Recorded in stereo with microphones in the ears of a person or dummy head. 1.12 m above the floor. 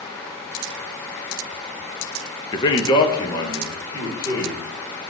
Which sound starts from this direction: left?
A man speaking, at 2.5 s.